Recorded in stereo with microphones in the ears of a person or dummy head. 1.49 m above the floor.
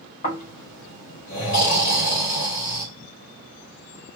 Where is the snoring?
45° left (ahead or behind), 1.7 m.